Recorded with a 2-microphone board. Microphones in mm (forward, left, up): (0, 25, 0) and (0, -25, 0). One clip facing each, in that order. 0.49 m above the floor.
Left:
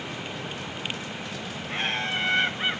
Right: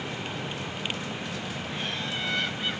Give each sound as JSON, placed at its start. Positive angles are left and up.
{"t": 1.7, "sound": "laughter", "side_deg": 55, "distance_m": 1.9}